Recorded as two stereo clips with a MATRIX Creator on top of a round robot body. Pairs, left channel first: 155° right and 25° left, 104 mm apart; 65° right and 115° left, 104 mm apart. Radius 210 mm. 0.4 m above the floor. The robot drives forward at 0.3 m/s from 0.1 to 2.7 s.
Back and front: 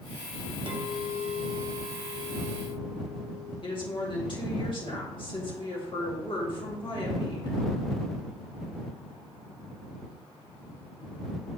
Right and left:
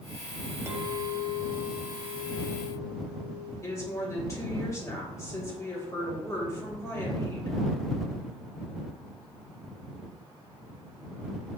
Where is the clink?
50° left, 1.3 m; by 3.5 s 85° left, 1.1 m.